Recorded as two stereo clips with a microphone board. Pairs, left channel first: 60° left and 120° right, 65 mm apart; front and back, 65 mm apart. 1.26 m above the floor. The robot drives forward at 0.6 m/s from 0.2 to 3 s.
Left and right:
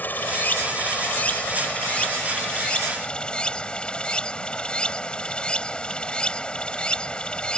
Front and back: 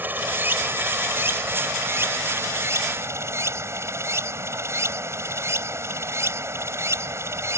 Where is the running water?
120° left; by 7.6 s 135° left.